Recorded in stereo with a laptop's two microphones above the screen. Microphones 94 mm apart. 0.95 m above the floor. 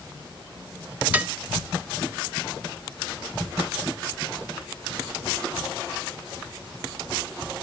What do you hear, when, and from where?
1.1 s dishes clattering: 15° right (ahead or behind), 0.6 m